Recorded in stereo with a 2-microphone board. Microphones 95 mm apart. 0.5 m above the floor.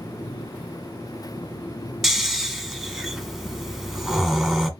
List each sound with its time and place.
2.0 s snoring: centre (ahead or behind), 1.1 m